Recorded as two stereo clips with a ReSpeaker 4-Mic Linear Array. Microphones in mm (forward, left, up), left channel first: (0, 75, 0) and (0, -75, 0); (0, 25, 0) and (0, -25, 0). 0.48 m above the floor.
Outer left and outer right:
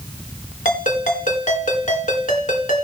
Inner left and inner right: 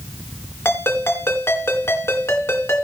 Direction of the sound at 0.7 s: 60° left (ahead or behind).